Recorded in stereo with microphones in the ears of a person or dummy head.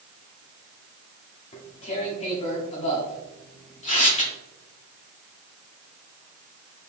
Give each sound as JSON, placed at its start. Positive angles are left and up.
{"t": 1.5, "sound": "tearing paper", "side_deg": 30, "distance_m": 0.9}